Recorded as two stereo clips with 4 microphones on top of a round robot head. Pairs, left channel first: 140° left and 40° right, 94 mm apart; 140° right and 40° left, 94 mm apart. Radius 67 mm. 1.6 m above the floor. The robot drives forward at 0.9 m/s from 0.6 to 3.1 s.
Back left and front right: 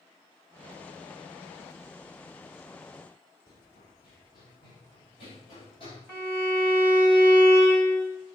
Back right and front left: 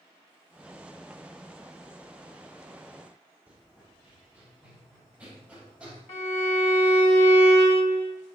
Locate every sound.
3.5 s running footsteps: 115° left, 4 m
6.1 s a violin: 155° right, 1.8 m